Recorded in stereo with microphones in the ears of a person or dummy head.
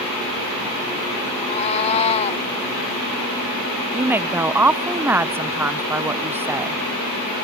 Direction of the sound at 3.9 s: 5° right (ahead or behind).